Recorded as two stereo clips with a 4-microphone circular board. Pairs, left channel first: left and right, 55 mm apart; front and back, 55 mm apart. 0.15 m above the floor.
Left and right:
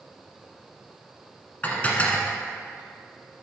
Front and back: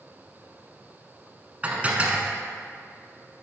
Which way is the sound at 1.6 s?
130° left.